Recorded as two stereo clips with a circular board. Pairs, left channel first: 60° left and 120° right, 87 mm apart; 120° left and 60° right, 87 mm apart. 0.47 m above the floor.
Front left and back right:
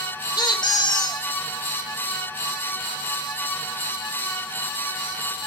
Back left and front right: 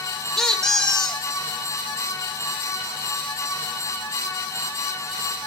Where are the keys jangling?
I don't hear keys jangling.